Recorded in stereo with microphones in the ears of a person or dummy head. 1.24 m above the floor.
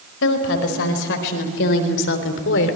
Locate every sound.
0.2 s a woman speaking: 70° left (ahead or behind), 5 m